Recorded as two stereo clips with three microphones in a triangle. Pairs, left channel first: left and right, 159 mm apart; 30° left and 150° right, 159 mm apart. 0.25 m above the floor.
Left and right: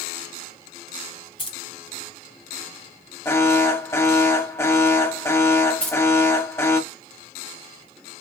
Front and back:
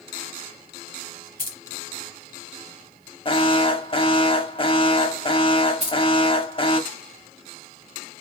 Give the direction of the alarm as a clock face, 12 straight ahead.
11 o'clock.